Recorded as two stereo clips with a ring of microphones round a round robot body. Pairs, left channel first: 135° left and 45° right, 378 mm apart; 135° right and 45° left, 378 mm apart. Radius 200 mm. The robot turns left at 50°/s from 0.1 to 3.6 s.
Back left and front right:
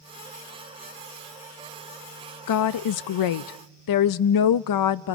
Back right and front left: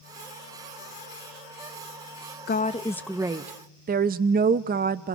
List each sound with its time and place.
2.5 s a woman speaking: 165° left, 0.5 m; by 5.2 s 110° left, 0.5 m